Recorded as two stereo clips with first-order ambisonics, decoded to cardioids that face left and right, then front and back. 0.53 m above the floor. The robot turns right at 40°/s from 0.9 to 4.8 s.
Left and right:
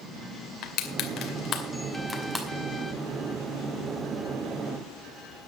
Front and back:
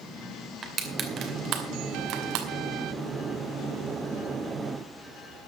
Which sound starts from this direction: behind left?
Crushing, at 0.6 s.